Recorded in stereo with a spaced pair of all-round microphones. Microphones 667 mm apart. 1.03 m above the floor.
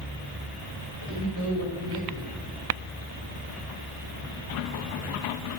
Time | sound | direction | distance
1.0 | a man speaking | 25° right (ahead or behind) | 5.5 m